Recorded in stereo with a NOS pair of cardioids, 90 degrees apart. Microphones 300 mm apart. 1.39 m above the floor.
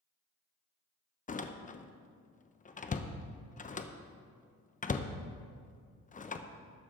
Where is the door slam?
25° left, 0.9 m.